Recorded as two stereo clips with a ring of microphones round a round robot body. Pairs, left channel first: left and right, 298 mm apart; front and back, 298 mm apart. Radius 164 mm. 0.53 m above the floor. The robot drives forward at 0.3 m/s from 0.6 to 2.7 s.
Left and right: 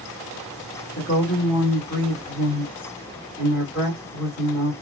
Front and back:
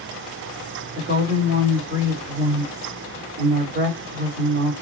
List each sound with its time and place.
0.9 s a woman speaking: 135° left, 1.4 m; by 4.7 s 155° left, 1.7 m